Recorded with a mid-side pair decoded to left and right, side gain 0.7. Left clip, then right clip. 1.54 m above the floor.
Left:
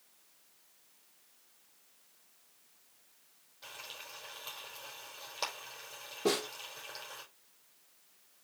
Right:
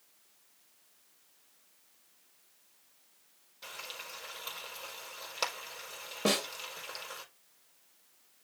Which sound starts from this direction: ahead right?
A snare drum, at 6.2 s.